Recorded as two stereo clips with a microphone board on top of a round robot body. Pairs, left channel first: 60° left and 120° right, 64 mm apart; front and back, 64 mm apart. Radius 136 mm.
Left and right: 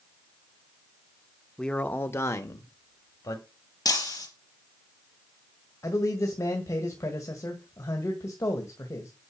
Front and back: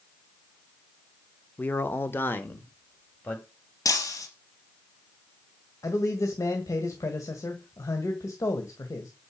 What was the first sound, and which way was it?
A man speaking, 10° right.